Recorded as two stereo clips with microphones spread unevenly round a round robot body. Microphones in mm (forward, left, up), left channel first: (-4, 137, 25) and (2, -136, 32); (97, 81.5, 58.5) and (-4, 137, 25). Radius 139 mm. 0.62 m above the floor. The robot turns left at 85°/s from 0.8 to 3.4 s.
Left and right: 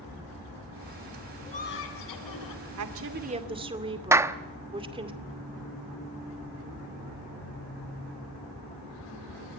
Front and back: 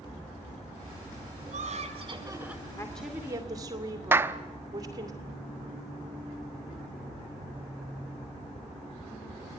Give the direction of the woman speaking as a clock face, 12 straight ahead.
4 o'clock.